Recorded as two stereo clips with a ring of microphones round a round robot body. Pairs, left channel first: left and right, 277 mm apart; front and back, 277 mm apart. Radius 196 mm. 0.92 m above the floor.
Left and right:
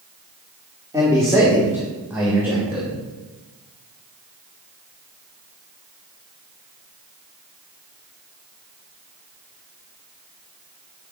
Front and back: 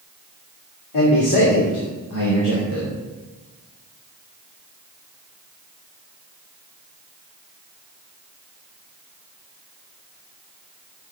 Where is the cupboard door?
I don't hear a cupboard door.